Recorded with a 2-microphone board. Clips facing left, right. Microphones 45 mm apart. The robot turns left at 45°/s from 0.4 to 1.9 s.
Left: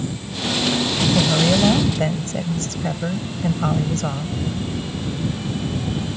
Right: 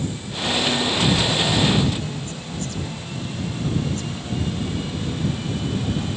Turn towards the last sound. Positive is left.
turn(degrees=70)